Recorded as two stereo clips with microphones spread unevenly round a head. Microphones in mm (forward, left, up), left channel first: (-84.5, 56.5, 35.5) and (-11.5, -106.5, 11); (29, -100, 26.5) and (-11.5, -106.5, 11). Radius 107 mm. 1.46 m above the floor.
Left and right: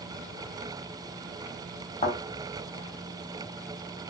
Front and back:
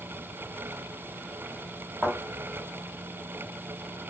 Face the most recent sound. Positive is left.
turn(degrees=105)